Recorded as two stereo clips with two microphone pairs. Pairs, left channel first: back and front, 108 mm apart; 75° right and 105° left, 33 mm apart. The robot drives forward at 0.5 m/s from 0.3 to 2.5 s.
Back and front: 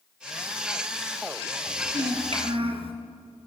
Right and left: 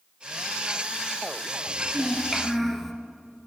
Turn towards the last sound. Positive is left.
turn(degrees=5)